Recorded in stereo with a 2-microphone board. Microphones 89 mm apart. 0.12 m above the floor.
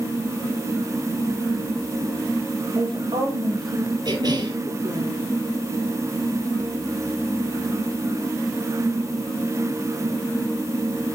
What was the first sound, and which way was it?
A woman speaking, 65° right (ahead or behind).